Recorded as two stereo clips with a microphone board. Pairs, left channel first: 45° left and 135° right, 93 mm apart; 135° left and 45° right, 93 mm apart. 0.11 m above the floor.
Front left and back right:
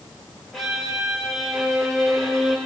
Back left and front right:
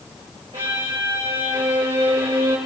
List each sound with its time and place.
0.5 s a violin: 45° right, 2 m